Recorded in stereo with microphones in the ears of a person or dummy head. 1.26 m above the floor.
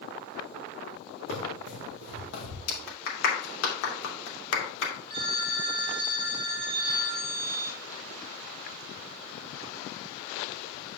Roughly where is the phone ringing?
Right.